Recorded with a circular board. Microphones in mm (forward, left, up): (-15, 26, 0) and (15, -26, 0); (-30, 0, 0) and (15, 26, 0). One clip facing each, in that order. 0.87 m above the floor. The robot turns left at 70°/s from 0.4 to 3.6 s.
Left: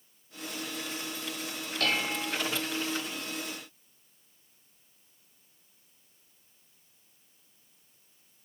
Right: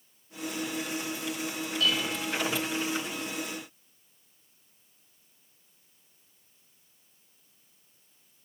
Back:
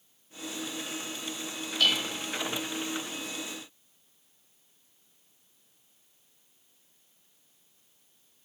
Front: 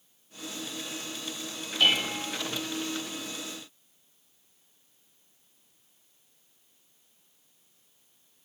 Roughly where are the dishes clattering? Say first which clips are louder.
Even, front 3 dB; left.